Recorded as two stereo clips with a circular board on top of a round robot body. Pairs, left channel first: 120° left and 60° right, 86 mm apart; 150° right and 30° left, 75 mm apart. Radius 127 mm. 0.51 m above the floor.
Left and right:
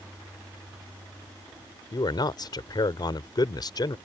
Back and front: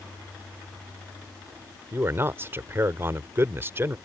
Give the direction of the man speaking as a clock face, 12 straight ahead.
9 o'clock.